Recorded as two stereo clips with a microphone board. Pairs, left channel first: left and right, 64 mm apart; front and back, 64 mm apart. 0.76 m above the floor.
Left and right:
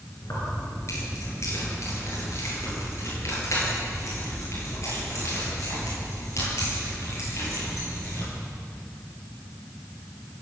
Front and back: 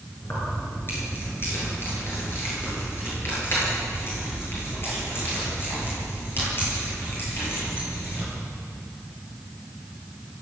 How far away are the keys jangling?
About 9.5 m.